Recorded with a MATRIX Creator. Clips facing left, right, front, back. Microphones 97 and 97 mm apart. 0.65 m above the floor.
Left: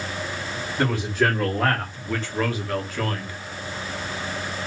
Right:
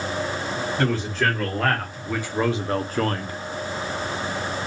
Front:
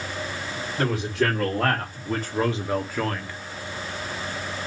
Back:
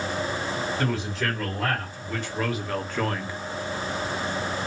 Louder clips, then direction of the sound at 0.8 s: Left 2 dB, front 3 dB; 15° left.